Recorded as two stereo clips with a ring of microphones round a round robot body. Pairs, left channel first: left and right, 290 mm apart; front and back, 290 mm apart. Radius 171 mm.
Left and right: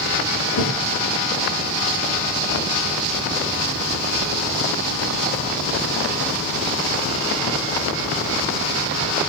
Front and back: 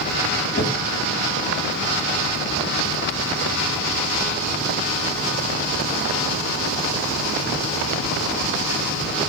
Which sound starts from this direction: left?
A thud, at 0.5 s.